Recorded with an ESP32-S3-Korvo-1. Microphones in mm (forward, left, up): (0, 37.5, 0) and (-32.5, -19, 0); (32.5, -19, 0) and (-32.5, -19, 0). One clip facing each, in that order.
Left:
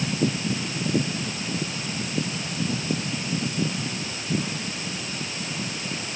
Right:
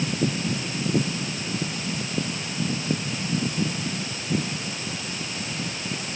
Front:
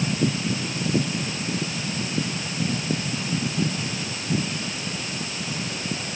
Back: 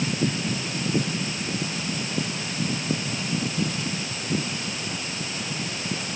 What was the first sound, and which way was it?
Only background noise.